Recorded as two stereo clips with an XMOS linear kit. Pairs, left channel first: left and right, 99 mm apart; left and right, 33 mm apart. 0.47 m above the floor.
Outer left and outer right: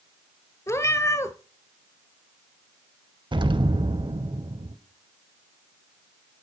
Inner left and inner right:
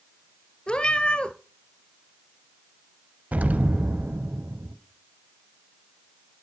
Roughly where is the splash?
I don't hear a splash.